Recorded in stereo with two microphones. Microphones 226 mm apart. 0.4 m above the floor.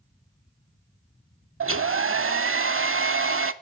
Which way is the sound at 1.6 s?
70° right (ahead or behind).